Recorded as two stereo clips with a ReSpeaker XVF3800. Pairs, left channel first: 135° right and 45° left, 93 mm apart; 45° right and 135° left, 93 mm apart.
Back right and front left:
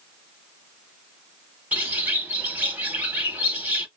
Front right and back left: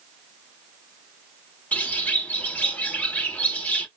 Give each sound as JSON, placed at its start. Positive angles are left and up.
{"t": 1.7, "sound": "a bird", "azimuth_deg": 5, "distance_m": 0.9}